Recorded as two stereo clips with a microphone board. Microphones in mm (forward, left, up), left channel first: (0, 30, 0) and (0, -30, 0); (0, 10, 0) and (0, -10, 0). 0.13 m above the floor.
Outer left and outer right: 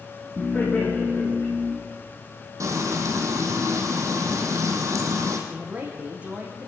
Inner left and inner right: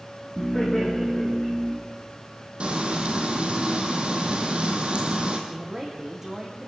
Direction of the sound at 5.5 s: 20° right (ahead or behind).